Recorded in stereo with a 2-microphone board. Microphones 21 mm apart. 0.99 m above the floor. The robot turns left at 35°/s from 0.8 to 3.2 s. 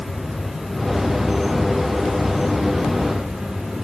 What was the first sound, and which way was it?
An insect, 20° right.